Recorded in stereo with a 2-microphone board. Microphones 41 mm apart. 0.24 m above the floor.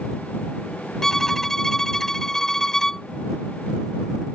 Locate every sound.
1.0 s a violin: 10° left (ahead or behind)